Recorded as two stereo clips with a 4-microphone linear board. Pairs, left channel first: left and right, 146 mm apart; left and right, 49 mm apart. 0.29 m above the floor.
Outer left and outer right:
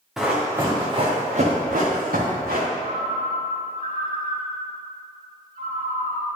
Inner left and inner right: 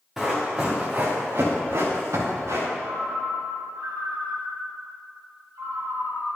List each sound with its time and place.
0.2 s running footsteps: centre (ahead or behind), 2 m; by 2.7 s 80° right, 3.5 m
2.8 s a ringtone: 70° right (ahead or behind), 2.5 m